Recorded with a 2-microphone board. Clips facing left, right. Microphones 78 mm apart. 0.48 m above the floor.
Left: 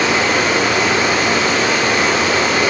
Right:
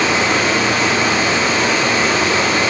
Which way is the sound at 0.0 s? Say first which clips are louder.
Even; 60° left (ahead or behind).